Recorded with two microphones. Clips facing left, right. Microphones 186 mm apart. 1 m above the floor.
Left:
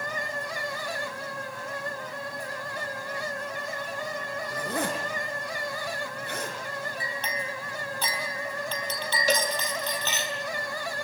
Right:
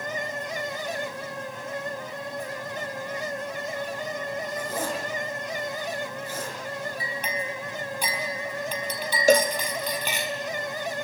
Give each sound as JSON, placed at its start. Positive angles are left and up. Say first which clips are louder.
{"t": 4.5, "sound": "a zipper", "louder": "even", "side_deg": 75, "distance_m": 6.5}
{"t": 7.0, "sound": "a clink", "louder": "right 2 dB", "side_deg": -10, "distance_m": 4.0}
{"t": 9.3, "sound": "a cowbell", "louder": "right 9 dB", "side_deg": -50, "distance_m": 1.4}